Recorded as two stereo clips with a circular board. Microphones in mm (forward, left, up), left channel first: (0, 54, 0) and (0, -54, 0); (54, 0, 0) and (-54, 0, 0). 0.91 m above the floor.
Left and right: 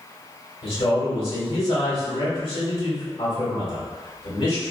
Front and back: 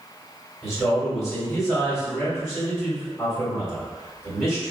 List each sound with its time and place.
0.6 s a man speaking: 90° left, 1.7 m